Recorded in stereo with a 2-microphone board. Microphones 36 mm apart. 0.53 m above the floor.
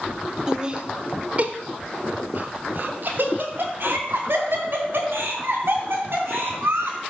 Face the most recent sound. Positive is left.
turn(degrees=-65)  # may be behind; listen again after turning